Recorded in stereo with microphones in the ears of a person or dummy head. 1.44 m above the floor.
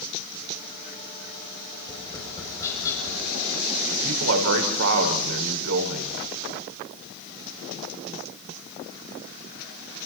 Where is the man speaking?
80° right, 5 m.